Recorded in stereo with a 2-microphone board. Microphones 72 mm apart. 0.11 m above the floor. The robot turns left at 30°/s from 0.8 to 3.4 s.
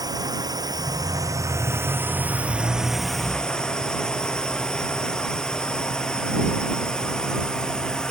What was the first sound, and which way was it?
A drone, 115° right.